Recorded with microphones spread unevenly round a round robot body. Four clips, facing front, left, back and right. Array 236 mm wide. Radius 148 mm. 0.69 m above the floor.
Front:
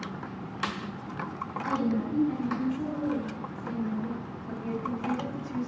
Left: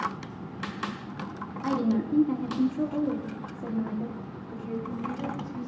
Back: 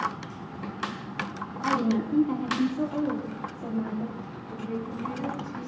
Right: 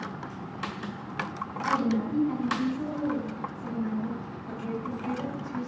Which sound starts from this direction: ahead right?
A woman speaking, at 4.5 s.